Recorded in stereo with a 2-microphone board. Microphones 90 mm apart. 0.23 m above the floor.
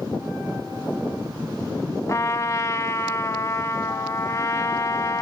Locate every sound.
2.1 s a trumpet: 35° left (ahead or behind), 0.9 m